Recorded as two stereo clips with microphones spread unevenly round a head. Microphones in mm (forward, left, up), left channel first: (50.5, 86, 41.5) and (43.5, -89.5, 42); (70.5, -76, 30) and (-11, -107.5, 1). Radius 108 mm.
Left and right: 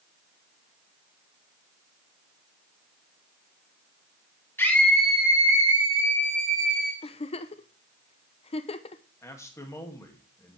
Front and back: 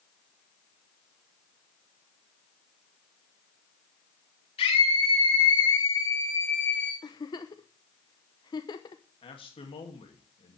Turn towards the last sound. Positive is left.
turn(degrees=15)